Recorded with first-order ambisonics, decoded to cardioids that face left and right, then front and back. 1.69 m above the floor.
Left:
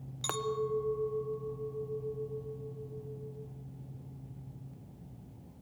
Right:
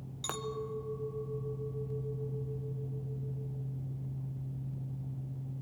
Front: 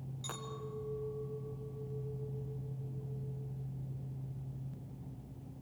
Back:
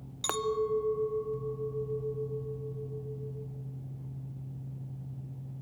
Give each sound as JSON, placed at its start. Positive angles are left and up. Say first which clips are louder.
{"t": 0.2, "sound": "a clink", "louder": "left 5 dB, back 15 dB", "azimuth_deg": 165, "distance_m": 0.7}